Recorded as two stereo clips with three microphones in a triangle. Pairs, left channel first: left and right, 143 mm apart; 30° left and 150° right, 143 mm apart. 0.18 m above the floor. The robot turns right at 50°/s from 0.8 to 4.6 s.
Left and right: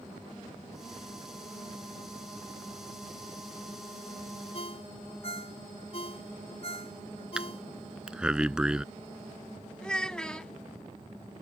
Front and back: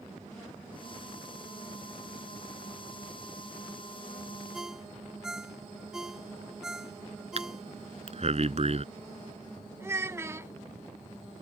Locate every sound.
4.5 s a ringtone: 120° left; by 7.6 s 125° left
7.4 s breathing: 170° right
9.8 s a child speaking: 170° left